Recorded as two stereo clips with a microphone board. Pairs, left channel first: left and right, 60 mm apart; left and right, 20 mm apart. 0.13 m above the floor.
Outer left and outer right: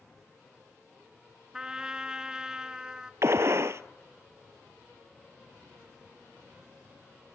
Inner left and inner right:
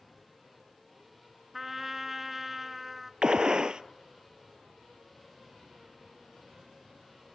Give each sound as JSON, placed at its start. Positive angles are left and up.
{"t": 1.5, "sound": "a trumpet", "side_deg": -10, "distance_m": 1.4}
{"t": 3.2, "sound": "a gunshot", "side_deg": -50, "distance_m": 0.8}